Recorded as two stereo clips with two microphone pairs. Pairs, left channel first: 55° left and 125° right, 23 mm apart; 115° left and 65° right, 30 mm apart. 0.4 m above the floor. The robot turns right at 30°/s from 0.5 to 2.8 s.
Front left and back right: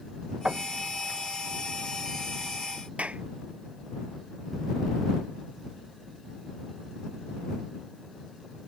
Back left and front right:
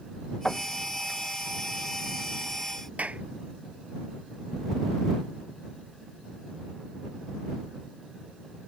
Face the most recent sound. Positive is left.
turn(degrees=-100)